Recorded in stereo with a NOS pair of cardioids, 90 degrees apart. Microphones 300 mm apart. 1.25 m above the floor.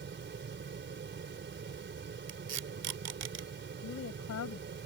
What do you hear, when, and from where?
0.0 s a fan: 35° right
2.3 s tape being pulled: 60° right
3.8 s a woman speaking: 60° left